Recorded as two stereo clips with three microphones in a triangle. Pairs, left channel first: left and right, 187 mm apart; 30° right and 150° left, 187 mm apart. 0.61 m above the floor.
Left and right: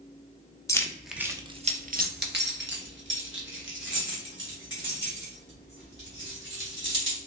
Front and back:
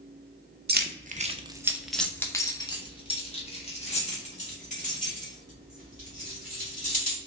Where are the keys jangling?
160° left, 0.6 m; by 7.2 s 80° right, 3 m.